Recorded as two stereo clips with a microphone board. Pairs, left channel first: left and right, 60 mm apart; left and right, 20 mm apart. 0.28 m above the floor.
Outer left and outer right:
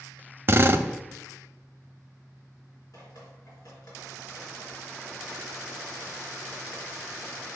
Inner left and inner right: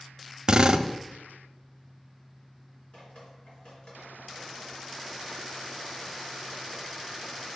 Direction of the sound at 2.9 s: 70° left (ahead or behind).